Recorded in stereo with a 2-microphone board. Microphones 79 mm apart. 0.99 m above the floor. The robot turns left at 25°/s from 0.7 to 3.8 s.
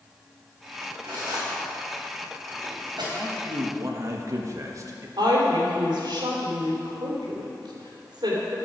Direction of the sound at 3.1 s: 30° right (ahead or behind).